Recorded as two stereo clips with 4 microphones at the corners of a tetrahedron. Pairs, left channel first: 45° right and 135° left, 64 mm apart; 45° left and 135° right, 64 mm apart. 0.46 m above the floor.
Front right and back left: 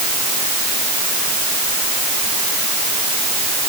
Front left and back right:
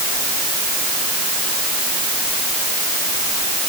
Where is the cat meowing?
I don't hear a cat meowing.